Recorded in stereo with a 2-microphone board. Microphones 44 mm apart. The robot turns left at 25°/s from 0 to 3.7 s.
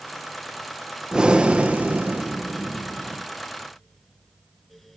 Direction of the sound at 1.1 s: 20° right.